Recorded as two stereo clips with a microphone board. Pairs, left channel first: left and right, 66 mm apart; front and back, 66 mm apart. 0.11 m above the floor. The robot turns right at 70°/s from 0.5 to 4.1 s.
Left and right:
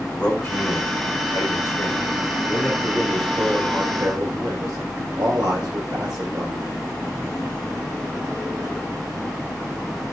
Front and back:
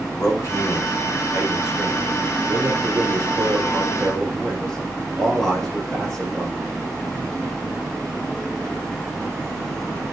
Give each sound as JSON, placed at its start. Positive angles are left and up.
{"t": 0.1, "sound": "a man speaking", "azimuth_deg": 30, "distance_m": 5.5}